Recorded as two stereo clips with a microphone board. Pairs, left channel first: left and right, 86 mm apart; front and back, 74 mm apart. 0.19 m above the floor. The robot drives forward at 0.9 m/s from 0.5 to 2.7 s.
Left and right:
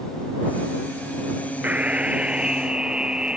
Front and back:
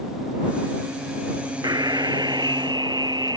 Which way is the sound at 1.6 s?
160° right.